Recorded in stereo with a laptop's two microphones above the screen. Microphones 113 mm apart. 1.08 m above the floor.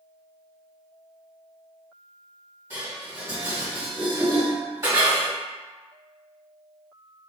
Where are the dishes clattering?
25° right (ahead or behind), 1.7 m.